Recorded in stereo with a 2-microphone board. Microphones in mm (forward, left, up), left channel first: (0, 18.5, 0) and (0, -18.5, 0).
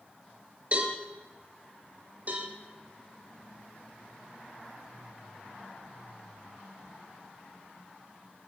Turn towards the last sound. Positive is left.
turn(degrees=-45)  # may be behind; listen again after turning